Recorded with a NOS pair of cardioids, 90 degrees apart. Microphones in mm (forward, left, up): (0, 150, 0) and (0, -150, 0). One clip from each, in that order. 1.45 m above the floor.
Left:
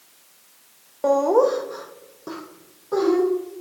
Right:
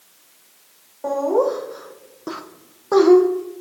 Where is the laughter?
45° left, 1.0 m; by 3.2 s 75° right, 0.8 m.